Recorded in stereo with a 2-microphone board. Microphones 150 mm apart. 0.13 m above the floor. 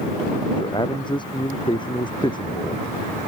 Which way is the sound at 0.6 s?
30° left (ahead or behind).